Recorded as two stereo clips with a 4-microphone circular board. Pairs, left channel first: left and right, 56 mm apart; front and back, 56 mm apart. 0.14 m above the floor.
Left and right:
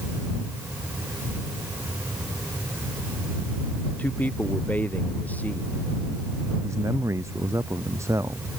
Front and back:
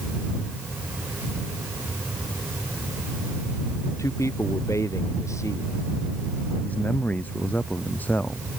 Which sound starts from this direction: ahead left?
A man speaking, at 4.0 s.